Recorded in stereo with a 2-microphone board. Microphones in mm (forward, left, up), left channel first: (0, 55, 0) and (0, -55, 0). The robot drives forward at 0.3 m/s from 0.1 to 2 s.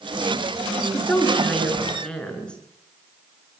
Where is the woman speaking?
10° left (ahead or behind), 6.5 m.